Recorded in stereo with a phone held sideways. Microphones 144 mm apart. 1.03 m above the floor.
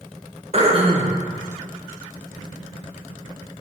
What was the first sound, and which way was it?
Throat clearing, 45° right (ahead or behind).